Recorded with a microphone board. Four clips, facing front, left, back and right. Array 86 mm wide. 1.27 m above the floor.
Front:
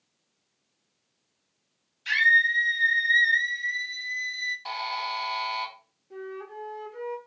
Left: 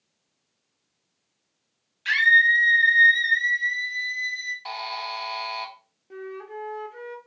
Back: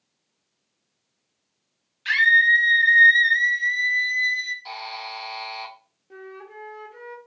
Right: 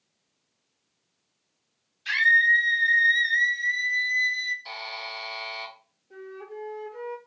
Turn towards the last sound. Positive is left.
turn(degrees=125)